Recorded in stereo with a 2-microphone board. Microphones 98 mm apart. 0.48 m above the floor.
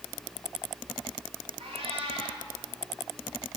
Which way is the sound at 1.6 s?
75° right (ahead or behind).